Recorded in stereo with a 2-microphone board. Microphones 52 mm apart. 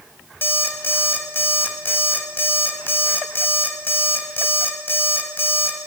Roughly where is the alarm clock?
Left.